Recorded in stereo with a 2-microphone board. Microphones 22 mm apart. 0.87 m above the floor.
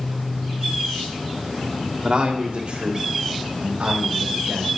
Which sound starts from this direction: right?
A man speaking, at 2.0 s.